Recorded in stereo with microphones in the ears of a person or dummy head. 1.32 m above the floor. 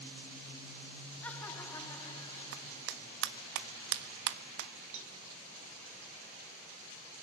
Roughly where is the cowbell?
Right.